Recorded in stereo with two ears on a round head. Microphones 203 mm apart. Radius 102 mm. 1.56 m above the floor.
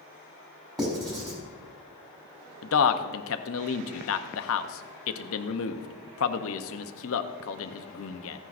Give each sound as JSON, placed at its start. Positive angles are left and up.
{"t": 0.8, "sound": "writing", "side_deg": -15, "distance_m": 4.0}
{"t": 2.6, "sound": "a man speaking", "side_deg": 60, "distance_m": 0.7}